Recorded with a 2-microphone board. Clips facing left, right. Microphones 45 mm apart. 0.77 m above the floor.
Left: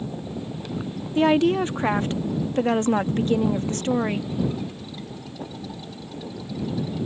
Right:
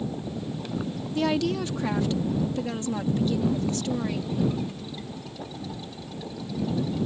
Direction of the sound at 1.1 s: 30° left (ahead or behind).